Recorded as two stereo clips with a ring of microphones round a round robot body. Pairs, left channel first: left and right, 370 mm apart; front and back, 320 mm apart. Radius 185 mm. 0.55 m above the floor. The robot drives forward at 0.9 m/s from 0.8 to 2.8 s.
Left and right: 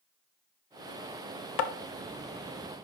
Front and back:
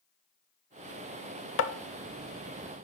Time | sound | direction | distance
1.6 | tapping | 55° left | 0.6 m